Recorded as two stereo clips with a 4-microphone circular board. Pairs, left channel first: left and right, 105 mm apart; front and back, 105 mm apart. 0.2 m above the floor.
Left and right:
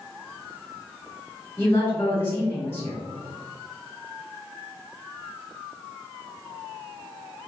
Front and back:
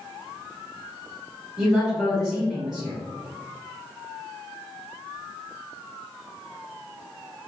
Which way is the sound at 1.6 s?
95° left.